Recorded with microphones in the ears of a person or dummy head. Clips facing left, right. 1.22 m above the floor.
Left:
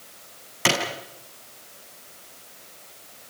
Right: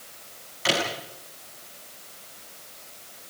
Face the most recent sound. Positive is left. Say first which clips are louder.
# left 2 dB
turn(degrees=65)  # may be behind; listen again after turning